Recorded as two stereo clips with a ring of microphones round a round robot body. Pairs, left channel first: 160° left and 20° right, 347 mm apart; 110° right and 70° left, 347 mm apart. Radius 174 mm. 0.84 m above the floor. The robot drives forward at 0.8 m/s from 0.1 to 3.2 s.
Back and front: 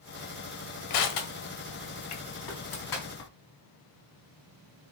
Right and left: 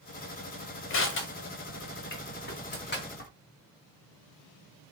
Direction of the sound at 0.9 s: 170° right.